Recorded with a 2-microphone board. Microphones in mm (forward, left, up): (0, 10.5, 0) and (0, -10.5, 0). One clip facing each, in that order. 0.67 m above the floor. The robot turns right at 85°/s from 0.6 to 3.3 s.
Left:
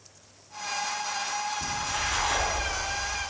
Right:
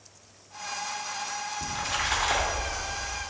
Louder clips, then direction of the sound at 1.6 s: Even; 100° right.